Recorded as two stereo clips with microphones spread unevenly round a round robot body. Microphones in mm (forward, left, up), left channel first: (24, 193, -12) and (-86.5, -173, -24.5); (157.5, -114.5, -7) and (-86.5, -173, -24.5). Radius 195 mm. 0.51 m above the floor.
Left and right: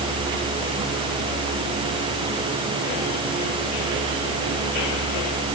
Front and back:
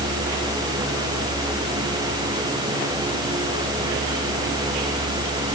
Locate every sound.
Only background noise.